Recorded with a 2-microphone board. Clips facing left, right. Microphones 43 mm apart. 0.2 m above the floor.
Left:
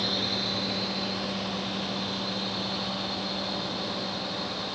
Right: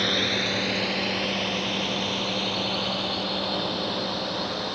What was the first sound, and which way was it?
A drone, 65° right (ahead or behind).